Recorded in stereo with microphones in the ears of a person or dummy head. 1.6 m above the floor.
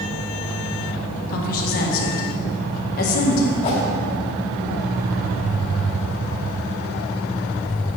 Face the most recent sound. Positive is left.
turn(degrees=30)  # may be behind; listen again after turning